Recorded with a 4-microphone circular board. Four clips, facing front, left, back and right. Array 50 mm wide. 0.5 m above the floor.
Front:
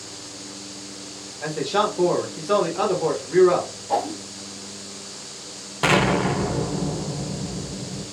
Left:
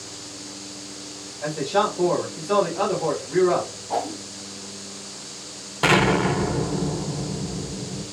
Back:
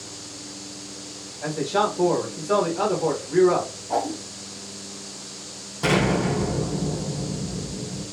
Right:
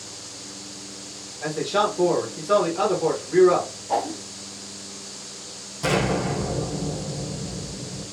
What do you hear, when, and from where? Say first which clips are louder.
1.4 s a man speaking: left 1 dB, front 1 dB; 15° right, 1.5 m
3.9 s a whoosh: right 2 dB, front 1 dB; 35° right, 1.8 m
5.8 s an explosion: left 5 dB, front 2 dB; 50° left, 0.9 m